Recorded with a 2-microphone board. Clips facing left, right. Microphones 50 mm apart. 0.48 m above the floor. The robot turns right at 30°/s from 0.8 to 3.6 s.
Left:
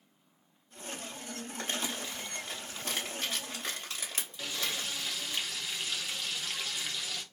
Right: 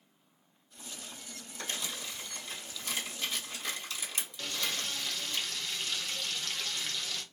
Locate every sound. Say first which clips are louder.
1.6 s crumpling: left 2 dB; 40° left (ahead or behind), 1.5 m; by 5.4 s 45° left (ahead or behind), 1.5 m
4.4 s frying: even; 10° left (ahead or behind), 0.6 m